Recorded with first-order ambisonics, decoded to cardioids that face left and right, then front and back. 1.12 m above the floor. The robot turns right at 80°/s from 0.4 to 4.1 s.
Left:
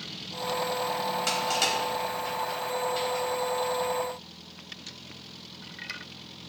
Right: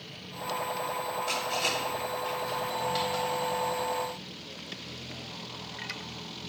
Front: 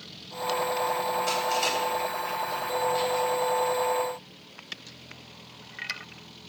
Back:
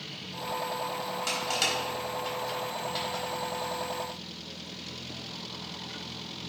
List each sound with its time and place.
1.3 s crushing: 105° left, 4 m; by 3.2 s 95° right, 4 m